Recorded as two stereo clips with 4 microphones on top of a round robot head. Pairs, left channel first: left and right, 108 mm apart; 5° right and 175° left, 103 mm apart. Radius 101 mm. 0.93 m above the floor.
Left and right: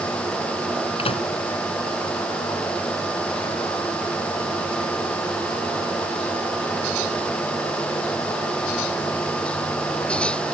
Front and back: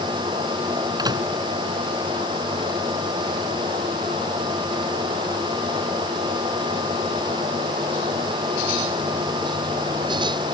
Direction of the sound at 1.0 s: 120° left.